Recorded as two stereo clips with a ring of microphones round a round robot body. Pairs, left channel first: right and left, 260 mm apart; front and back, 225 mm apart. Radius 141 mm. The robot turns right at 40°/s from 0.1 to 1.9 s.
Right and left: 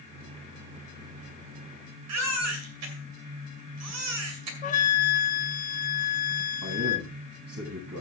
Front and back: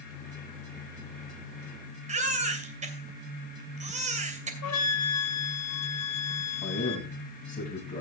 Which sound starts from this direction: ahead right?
A flute, at 4.6 s.